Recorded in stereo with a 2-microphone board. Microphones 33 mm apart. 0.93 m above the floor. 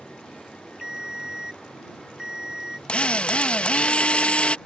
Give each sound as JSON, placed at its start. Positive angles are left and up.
{"t": 0.8, "sound": "a ringtone", "side_deg": -15}
{"t": 2.9, "sound": "a drill", "side_deg": 35}